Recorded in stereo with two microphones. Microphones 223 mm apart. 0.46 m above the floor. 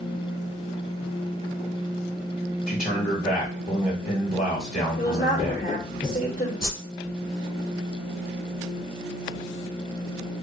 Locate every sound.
2.7 s a man speaking: 40° left (ahead or behind), 1.9 m
5.0 s a woman speaking: 40° left (ahead or behind), 1.8 m
6.6 s a whoosh: 45° left (ahead or behind), 2.0 m